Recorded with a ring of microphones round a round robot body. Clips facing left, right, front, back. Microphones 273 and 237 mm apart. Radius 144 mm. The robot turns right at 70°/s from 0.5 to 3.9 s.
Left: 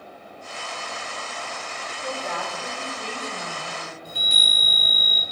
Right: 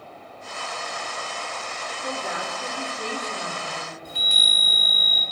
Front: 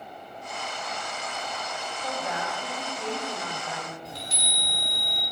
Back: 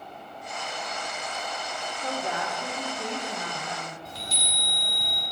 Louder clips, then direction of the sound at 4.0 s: Even, front 1 dB; 35° right.